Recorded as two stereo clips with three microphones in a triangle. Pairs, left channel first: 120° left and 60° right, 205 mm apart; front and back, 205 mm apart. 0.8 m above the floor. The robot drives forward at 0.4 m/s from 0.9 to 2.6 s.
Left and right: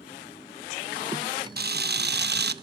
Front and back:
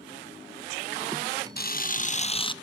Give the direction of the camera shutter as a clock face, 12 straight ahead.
1 o'clock.